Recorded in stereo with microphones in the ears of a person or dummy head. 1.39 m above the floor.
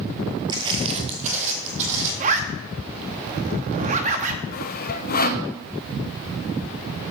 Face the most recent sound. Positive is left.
turn(degrees=50)  # may be behind; listen again after turning